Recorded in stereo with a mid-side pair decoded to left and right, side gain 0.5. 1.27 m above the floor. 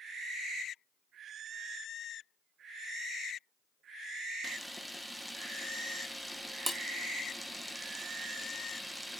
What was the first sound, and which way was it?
A camera shutter, 5° right.